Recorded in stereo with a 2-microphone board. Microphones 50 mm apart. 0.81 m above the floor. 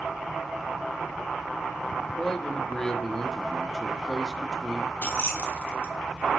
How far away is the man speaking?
About 0.9 m.